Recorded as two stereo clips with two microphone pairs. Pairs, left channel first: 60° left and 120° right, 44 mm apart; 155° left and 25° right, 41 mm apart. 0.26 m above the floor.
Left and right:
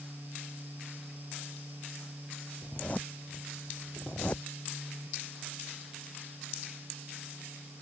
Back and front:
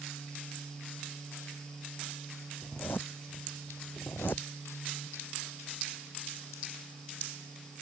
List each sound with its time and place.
2.6 s a zipper: 120° left